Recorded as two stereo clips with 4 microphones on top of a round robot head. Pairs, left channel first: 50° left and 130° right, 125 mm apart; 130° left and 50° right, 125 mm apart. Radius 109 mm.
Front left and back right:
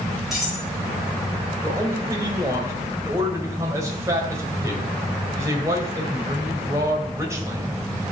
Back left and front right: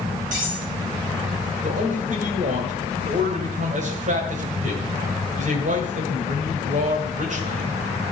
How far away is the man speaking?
About 2.5 m.